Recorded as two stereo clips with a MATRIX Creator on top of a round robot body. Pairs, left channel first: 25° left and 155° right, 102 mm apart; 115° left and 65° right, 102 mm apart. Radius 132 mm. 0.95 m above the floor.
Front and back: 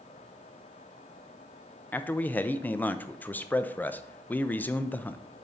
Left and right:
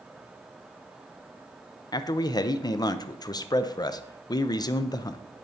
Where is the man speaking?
90° left, 0.5 m.